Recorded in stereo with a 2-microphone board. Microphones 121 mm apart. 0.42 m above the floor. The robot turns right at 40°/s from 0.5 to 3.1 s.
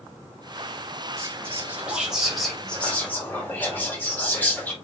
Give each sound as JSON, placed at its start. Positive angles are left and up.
{"t": 1.2, "sound": "whispering", "azimuth_deg": -50, "distance_m": 1.1}